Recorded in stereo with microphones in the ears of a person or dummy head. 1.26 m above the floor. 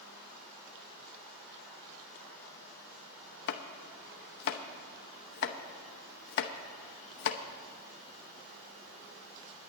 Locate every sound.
3.5 s chopping: 55° left (ahead or behind), 0.8 m